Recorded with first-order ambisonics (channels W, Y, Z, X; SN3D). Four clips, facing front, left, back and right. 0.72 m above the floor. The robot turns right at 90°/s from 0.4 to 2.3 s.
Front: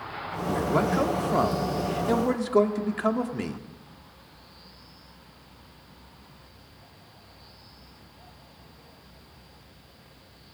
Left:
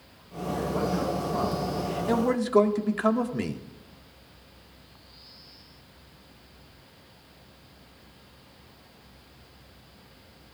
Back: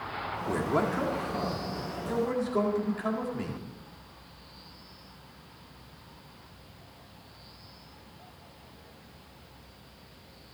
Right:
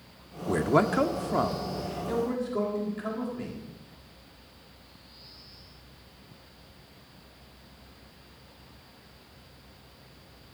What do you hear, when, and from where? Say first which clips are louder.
0.5 s a man speaking: right 4 dB, front 4 dB; 110° right, 1.7 m; by 3.6 s 55° left, 1.7 m